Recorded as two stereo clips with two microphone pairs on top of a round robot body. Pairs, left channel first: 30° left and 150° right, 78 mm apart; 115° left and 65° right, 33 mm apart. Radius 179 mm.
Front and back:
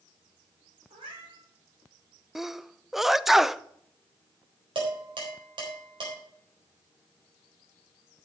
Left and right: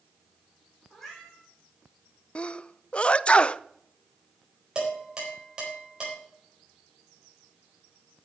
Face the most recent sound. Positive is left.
turn(degrees=-130)